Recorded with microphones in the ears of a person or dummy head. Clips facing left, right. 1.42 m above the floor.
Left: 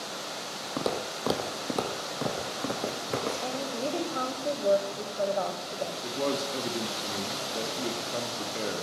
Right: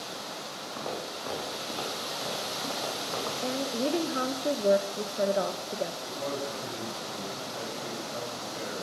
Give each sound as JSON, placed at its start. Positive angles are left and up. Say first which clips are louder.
{"t": 0.8, "sound": "footsteps", "louder": "left 6 dB", "side_deg": 55, "distance_m": 3.0}
{"t": 3.4, "sound": "a woman speaking", "louder": "right 2 dB", "side_deg": -25, "distance_m": 1.4}
{"t": 6.0, "sound": "a man speaking", "louder": "left 4 dB", "side_deg": 50, "distance_m": 2.5}